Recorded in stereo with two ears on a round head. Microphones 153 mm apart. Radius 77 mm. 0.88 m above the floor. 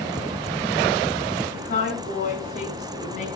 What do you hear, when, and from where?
1.5 s a woman speaking: 40° left (ahead or behind), 8 m; by 3.3 s 45° left (ahead or behind), 6.5 m